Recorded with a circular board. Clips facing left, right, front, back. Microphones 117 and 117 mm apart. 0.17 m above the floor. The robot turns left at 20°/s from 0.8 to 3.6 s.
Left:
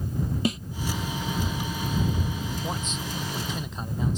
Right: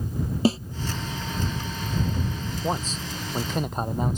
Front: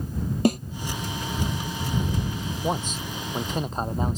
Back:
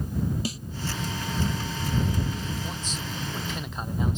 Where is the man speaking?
30° right; by 4.2 s 50° right.